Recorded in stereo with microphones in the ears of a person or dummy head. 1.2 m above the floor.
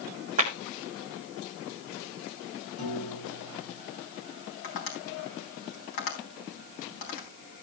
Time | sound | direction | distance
0.4 | a clap | 40° right (ahead or behind) | 3.5 m
2.8 | a piano | 40° left (ahead or behind) | 8.5 m
4.6 | tapping | 50° left (ahead or behind) | 4 m